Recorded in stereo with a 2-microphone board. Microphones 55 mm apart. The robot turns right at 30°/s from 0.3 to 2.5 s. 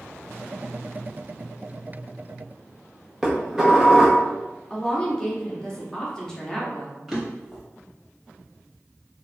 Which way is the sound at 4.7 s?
15° left (ahead or behind).